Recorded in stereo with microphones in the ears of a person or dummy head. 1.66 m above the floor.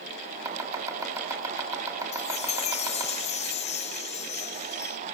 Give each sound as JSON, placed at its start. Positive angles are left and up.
{"t": 0.5, "sound": "chopping", "side_deg": -20, "distance_m": 6.5}
{"t": 2.1, "sound": "a chime", "side_deg": 35, "distance_m": 1.0}